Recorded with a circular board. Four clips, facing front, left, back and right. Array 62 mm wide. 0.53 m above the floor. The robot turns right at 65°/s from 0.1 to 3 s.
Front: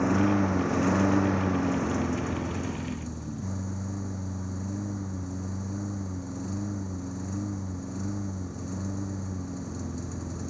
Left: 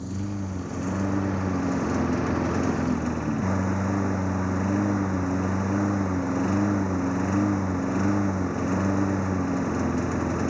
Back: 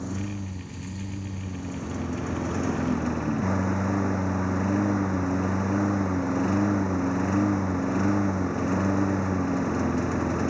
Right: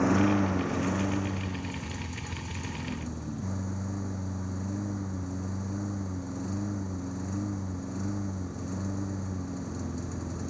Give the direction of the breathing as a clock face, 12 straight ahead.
I don't hear breathing.